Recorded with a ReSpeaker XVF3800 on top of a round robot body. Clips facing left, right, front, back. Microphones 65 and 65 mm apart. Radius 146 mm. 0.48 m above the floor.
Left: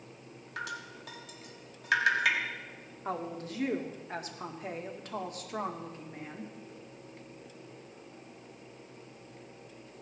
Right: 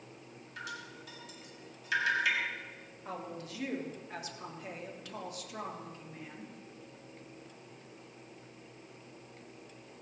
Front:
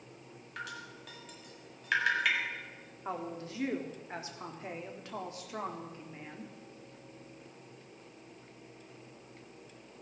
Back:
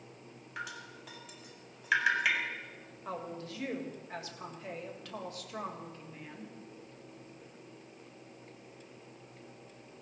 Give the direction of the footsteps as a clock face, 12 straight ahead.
I don't hear footsteps.